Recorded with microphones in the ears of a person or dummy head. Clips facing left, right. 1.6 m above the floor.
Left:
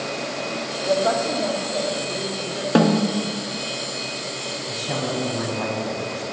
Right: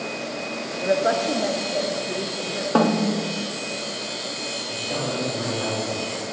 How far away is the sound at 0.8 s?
About 0.6 m.